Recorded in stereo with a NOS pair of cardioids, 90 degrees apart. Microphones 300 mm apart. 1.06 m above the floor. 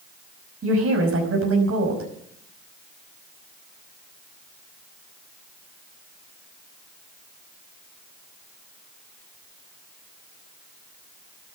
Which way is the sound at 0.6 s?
50° right.